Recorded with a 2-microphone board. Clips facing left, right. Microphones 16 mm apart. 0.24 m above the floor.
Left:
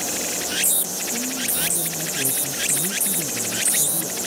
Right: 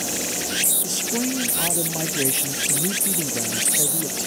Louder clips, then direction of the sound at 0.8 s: Right 3 dB; 45° right (ahead or behind).